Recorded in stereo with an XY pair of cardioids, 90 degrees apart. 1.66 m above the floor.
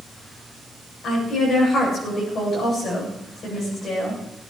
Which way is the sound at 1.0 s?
65° left.